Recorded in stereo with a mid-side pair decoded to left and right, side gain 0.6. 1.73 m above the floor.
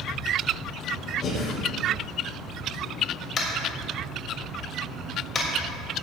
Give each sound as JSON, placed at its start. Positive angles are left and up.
{"t": 1.2, "sound": "breathing", "azimuth_deg": 45, "distance_m": 4.0}
{"t": 3.4, "sound": "tapping", "azimuth_deg": 40, "distance_m": 3.0}